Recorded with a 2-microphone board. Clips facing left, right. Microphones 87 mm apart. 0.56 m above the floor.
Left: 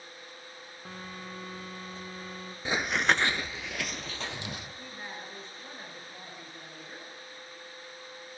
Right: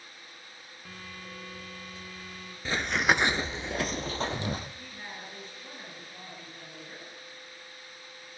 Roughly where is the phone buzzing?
Left.